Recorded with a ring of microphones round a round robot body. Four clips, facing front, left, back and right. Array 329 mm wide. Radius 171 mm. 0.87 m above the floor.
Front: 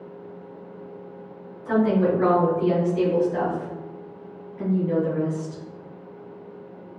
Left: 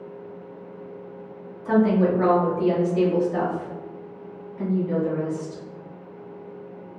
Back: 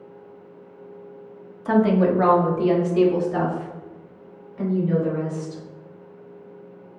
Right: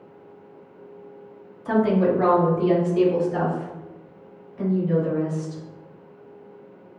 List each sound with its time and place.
1.6 s a woman speaking: straight behind, 1.4 m; by 5.6 s 175° right, 3.5 m